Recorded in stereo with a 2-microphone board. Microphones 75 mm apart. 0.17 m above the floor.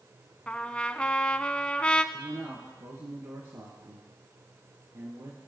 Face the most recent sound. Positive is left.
turn(degrees=-50)  # may be behind; listen again after turning